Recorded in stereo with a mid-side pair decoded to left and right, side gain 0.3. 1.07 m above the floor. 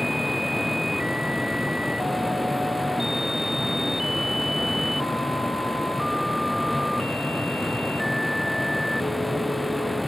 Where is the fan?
10° left.